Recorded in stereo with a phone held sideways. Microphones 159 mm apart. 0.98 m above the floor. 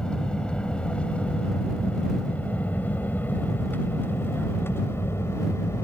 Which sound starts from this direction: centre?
An aircraft, at 0.0 s.